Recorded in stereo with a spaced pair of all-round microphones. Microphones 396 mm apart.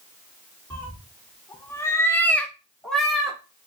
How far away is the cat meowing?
About 1.5 m.